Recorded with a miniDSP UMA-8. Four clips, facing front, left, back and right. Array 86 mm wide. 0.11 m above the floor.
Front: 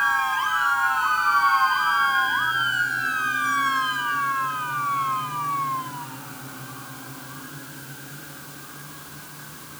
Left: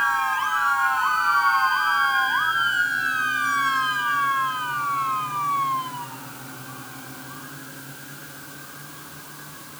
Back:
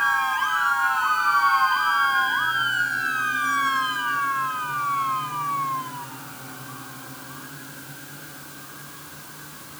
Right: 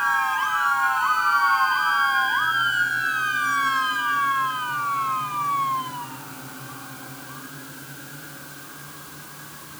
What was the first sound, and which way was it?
Only background noise.